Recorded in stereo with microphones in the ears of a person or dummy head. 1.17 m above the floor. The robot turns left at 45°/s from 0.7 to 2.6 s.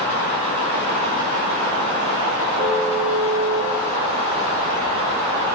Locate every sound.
2.5 s a car horn: 20° right (ahead or behind), 9.5 m; by 3.7 s 25° right (ahead or behind), 9.5 m